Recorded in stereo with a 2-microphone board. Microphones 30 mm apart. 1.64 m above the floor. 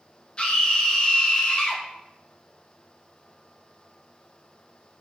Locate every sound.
0.4 s a scream: 35° left (ahead or behind), 2.5 m